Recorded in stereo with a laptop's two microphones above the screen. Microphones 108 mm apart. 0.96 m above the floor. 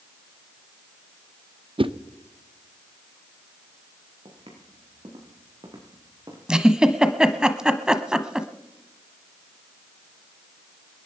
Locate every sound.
1.8 s a whoosh: 55° right (ahead or behind), 0.7 m
4.2 s footsteps: 55° right (ahead or behind), 6 m; by 6.4 s 40° right (ahead or behind), 5 m
6.5 s a giggle: 5° right (ahead or behind), 0.9 m